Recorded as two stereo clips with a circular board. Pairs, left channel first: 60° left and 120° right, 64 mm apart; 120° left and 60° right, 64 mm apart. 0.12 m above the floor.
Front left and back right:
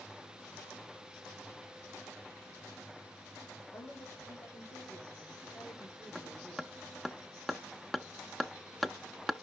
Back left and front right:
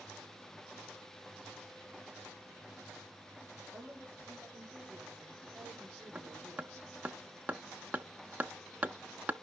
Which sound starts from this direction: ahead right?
Hammering, at 6.2 s.